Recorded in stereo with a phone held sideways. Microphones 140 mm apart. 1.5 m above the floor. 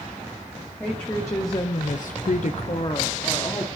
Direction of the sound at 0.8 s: 10° left (ahead or behind).